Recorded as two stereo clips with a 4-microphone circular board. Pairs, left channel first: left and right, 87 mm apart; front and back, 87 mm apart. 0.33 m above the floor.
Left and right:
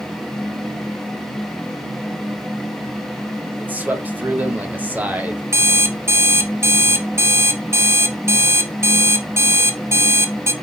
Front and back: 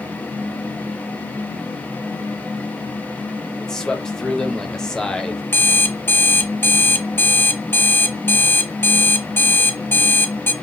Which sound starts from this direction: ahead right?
An alarm clock, at 5.5 s.